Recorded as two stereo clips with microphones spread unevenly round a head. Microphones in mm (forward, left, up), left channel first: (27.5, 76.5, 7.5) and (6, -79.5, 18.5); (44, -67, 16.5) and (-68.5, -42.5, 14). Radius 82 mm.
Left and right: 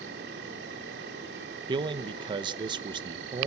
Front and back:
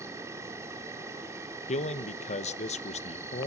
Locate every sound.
0.0 s an insect: 125° right, 4 m
1.7 s a man speaking: 35° right, 1.0 m